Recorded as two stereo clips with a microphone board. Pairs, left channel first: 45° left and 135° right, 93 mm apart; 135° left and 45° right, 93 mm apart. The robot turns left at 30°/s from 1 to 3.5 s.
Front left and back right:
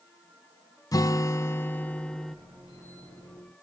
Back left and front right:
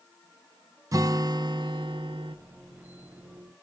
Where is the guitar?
Straight ahead, 0.5 m; by 2.4 s 40° right, 0.5 m.